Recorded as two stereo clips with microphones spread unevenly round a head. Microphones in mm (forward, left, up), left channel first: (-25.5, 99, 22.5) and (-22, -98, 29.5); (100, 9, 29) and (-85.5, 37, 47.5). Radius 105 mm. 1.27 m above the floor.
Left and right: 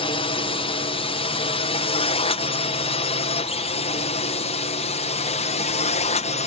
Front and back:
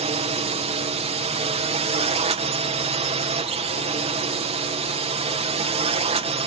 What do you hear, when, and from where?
0.0 s a drone: 135° left; by 6.5 s 125° left